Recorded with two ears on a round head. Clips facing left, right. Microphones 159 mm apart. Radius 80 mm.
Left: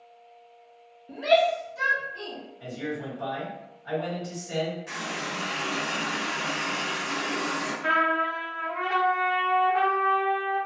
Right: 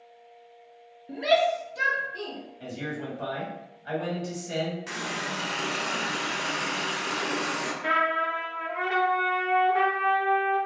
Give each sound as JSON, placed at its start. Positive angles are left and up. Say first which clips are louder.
{"t": 1.1, "sound": "a shout", "louder": "left 1 dB", "side_deg": -10, "distance_m": 0.5}
{"t": 2.6, "sound": "a man speaking", "louder": "left 2 dB", "side_deg": -40, "distance_m": 1.7}
{"t": 4.9, "sound": "a running tap", "louder": "right 1 dB", "side_deg": -65, "distance_m": 0.7}
{"t": 7.8, "sound": "a trumpet", "louder": "left 1 dB", "side_deg": -5, "distance_m": 0.6}